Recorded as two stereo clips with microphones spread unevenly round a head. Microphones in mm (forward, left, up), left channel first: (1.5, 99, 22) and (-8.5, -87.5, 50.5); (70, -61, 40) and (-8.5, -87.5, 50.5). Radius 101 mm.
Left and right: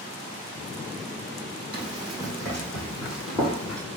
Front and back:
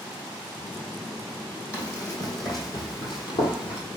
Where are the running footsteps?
30° right, 2.5 m; by 3.8 s straight ahead, 2 m.